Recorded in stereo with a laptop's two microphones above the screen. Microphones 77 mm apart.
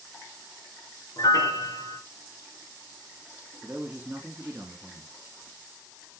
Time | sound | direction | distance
1.2 | a piano | 50° left (ahead or behind) | 3.5 m
3.6 | a man speaking | 20° right (ahead or behind) | 2 m